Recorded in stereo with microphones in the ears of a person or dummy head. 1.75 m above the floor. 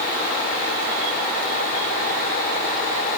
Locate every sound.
Only background noise.